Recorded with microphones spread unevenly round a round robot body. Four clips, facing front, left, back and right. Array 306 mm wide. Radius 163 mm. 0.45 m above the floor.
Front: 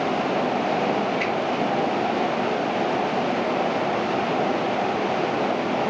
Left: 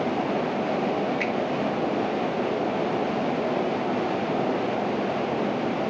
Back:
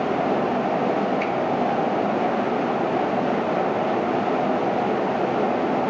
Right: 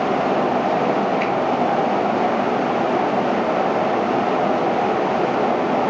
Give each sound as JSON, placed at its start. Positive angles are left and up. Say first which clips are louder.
{"t": 1.2, "sound": "a finger snap", "louder": "right 6 dB, back 1 dB", "azimuth_deg": 60, "distance_m": 7.0}